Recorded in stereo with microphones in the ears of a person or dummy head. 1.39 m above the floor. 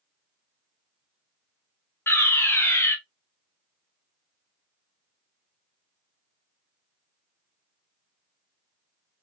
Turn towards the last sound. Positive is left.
turn(degrees=10)  # may be behind; listen again after turning